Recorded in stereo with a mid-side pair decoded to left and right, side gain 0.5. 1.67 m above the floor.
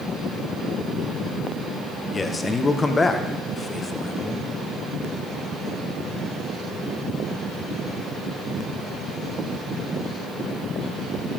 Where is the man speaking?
30° left, 1.6 m.